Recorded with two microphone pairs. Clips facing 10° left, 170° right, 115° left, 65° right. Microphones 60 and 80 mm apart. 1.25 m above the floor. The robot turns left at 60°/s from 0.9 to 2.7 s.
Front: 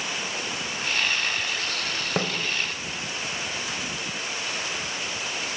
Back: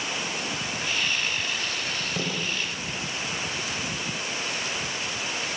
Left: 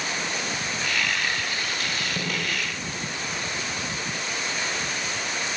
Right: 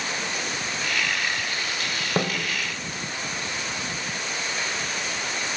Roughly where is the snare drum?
Ahead right.